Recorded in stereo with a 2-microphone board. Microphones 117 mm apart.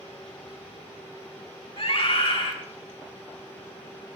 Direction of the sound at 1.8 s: 60° left (ahead or behind).